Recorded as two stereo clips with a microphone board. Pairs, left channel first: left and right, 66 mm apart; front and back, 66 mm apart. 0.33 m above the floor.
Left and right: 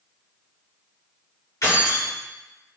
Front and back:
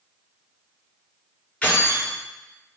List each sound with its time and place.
1.6 s keys jangling: 70° left, 1.8 m